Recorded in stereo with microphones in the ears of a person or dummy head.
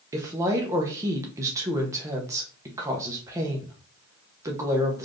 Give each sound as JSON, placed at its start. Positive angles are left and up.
{"t": 0.1, "sound": "a woman speaking", "side_deg": -15, "distance_m": 0.9}